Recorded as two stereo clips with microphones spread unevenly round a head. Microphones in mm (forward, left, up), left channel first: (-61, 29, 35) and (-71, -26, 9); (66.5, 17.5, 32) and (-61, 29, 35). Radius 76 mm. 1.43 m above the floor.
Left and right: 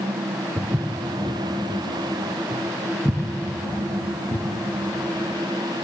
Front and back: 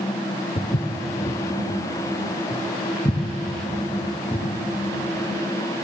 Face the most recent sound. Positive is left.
turn(degrees=65)